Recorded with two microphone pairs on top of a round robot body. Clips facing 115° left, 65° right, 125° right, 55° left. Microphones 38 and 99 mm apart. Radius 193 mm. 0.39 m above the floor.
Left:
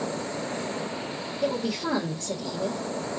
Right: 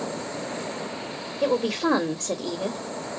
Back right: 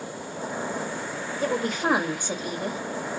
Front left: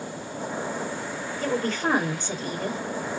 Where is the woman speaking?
45° right, 1.5 m.